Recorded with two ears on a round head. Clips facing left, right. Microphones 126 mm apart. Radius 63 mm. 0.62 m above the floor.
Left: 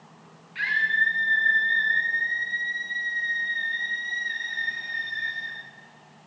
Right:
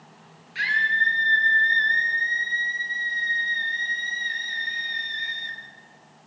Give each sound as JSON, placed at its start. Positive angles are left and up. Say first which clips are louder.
{"t": 0.6, "sound": "a scream", "louder": "right 2 dB", "side_deg": -50, "distance_m": 10.0}